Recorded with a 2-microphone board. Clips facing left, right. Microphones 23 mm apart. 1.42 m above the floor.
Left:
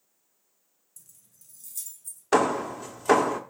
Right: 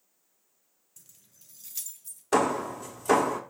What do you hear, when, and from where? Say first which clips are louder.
1.0 s keys jangling: right 1 dB; 40° right (ahead or behind), 0.7 m; by 2.2 s 65° right (ahead or behind), 1.5 m
2.3 s hammering: left 2 dB; 25° left (ahead or behind), 1.1 m